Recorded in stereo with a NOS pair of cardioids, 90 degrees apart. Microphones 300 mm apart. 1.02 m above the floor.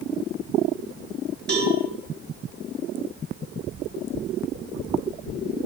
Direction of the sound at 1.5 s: 35° right.